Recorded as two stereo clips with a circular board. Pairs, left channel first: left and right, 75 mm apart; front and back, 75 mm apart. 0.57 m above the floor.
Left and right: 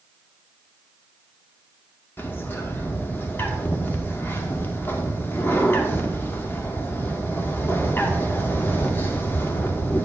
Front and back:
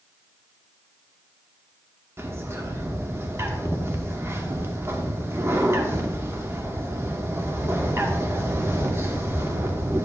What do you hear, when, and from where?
2.2 s a bird: 140° left, 0.9 m